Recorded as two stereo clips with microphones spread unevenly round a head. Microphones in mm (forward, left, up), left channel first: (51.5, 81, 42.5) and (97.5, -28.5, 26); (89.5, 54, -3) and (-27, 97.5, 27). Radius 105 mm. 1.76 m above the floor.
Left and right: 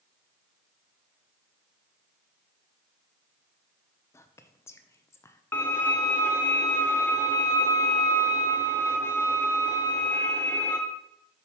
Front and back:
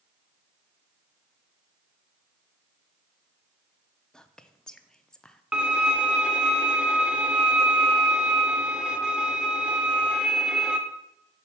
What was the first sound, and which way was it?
Whispering, 80° left.